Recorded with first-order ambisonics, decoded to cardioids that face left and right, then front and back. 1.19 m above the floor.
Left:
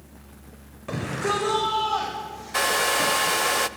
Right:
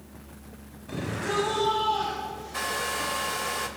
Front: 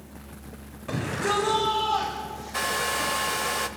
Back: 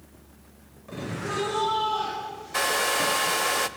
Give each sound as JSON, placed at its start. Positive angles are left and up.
{"t": 0.9, "sound": "a shout", "azimuth_deg": 55, "distance_m": 5.5}
{"t": 2.5, "sound": "a hair dryer", "azimuth_deg": 110, "distance_m": 0.7}